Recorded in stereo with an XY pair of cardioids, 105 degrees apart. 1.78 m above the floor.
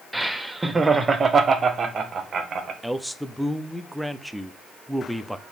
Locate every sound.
0.1 s laughter: 5° right, 1.0 m; by 2.7 s 50° right, 1.8 m
2.8 s a man speaking: 5° right, 0.7 m